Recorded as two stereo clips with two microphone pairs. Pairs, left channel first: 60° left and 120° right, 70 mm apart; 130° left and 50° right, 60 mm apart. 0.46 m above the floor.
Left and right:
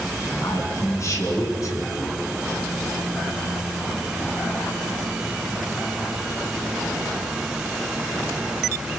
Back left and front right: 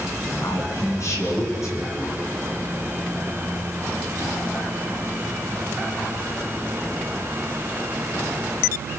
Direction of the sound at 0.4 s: 100° left.